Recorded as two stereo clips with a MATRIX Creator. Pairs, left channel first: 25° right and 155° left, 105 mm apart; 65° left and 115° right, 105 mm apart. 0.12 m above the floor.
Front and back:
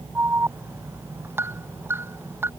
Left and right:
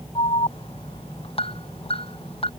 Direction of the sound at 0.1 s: 90° left.